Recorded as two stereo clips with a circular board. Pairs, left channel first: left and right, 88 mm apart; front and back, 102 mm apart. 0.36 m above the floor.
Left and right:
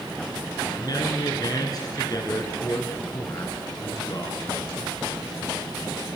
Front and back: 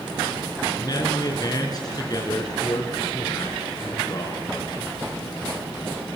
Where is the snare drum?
No snare drum in this recording.